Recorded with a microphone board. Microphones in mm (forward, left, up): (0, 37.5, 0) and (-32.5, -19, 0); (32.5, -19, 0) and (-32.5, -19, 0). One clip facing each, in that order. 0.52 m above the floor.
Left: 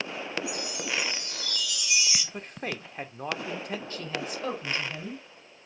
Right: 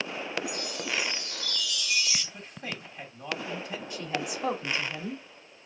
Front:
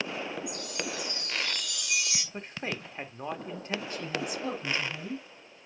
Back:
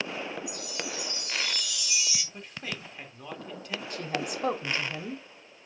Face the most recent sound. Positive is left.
turn(degrees=165)